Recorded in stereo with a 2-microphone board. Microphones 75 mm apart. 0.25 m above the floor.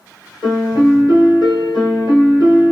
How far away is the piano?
About 1.2 m.